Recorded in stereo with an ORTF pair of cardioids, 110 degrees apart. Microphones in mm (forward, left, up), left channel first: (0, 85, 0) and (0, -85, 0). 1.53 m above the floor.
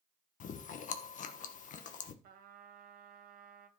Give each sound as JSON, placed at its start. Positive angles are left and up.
{"t": 0.4, "sound": "chewing", "azimuth_deg": 55, "distance_m": 1.3}
{"t": 2.2, "sound": "a trumpet", "azimuth_deg": -60, "distance_m": 1.8}